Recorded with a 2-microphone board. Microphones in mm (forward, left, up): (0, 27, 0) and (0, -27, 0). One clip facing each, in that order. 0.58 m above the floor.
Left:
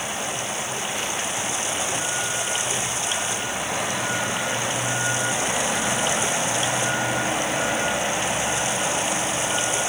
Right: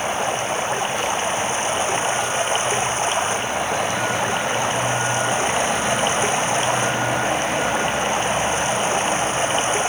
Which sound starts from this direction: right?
Running water, at 0.0 s.